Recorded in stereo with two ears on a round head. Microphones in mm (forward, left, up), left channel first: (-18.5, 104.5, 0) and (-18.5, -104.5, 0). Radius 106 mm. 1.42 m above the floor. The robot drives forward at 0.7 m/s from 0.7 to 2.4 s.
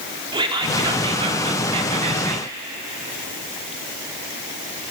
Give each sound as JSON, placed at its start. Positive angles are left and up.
{"t": 0.3, "sound": "whispering", "side_deg": -20, "distance_m": 3.5}